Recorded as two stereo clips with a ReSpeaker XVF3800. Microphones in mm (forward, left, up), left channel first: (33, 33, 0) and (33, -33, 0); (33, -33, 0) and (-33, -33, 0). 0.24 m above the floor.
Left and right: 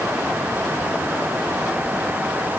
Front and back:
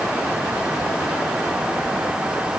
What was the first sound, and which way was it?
Only background noise.